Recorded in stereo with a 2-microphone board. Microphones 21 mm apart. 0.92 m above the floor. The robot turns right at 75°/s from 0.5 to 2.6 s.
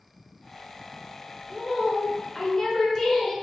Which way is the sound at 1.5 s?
40° right.